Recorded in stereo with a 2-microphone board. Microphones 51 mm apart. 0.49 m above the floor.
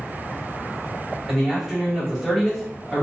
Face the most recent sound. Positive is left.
turn(degrees=5)  # may be behind; listen again after turning